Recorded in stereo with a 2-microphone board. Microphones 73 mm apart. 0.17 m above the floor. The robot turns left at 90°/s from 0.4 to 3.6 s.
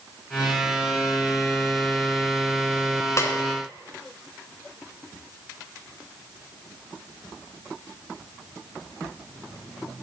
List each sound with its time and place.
3.2 s a snare drum: 40° left (ahead or behind), 0.8 m; by 3.3 s 35° left (ahead or behind), 0.8 m